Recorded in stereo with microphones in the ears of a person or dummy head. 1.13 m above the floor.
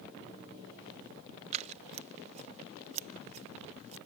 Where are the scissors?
35° right (ahead or behind).